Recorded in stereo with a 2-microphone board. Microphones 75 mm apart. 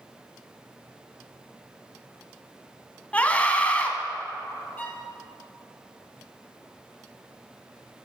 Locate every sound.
3.1 s a scream: 20° left (ahead or behind), 1.2 m
4.8 s a violin: 20° left (ahead or behind), 2 m